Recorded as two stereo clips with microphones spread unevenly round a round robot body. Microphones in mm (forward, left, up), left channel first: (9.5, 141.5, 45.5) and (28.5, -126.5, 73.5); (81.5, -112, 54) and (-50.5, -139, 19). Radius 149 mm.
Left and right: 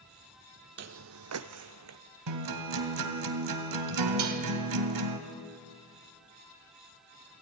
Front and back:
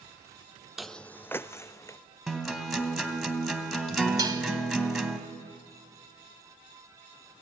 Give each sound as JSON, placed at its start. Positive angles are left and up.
{"t": 0.8, "sound": "footsteps", "azimuth_deg": -65, "distance_m": 0.5}
{"t": 2.3, "sound": "a guitar", "azimuth_deg": -80, "distance_m": 2.5}
{"t": 4.2, "sound": "dishes clattering", "azimuth_deg": -110, "distance_m": 2.5}